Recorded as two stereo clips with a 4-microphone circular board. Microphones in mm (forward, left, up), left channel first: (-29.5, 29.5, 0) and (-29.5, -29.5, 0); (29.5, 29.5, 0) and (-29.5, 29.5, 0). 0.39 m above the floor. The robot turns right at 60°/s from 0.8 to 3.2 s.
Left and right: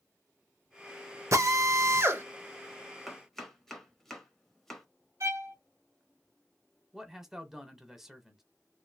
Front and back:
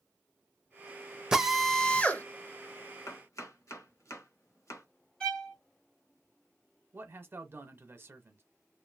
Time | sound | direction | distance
1.3 | a drill | 105° right | 0.6 m
3.1 | chopping | straight ahead | 1.0 m
5.2 | a violin | 75° right | 1.1 m
6.9 | a man speaking | 170° right | 1.0 m